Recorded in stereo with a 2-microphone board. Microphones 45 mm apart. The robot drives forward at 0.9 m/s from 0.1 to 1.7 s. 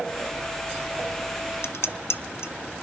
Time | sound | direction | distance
1.6 | dishes clattering | 70° left (ahead or behind) | 0.8 m